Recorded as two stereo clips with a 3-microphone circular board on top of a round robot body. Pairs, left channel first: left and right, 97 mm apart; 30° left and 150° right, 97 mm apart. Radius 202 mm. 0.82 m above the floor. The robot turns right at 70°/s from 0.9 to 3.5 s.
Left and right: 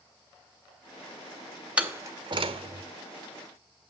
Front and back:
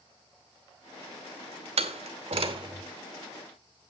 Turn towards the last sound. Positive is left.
turn(degrees=-50)